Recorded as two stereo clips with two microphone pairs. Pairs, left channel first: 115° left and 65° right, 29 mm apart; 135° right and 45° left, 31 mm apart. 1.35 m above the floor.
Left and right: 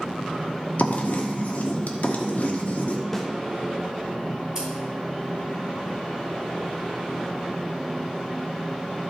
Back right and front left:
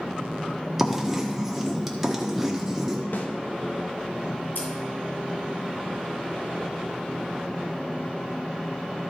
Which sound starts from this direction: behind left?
Writing, at 0.8 s.